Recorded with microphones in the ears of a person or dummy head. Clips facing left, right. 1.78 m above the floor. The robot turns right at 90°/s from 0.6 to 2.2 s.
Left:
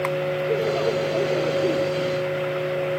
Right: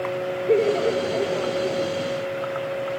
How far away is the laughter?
About 1.1 m.